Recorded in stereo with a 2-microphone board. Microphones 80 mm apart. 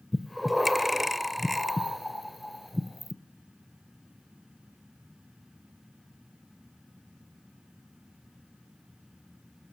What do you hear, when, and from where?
0.1 s breathing: centre (ahead or behind), 0.6 m